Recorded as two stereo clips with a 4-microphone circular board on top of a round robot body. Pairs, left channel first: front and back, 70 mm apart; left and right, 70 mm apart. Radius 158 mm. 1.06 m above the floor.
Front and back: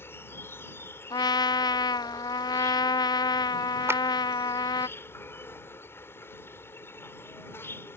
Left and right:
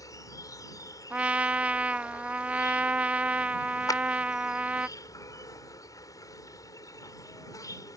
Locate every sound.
0.0 s an insect: 55° left
1.1 s a trumpet: 20° right
3.9 s a clap: 125° left